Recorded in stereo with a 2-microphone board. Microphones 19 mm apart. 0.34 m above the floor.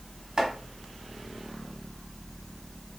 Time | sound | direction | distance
0.4 | chopping | 40° right (ahead or behind) | 1.0 m